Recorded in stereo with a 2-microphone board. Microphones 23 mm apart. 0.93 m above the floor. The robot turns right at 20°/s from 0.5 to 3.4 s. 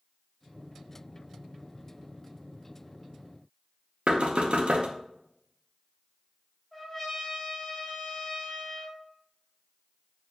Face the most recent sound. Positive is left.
turn(degrees=10)  # may be behind; listen again after turning